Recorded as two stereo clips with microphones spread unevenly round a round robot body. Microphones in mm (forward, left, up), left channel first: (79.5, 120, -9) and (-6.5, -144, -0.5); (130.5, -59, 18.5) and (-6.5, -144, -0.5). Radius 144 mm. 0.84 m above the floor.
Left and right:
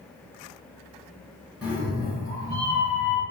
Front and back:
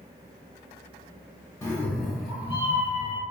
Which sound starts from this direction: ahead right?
A cat meowing, at 1.6 s.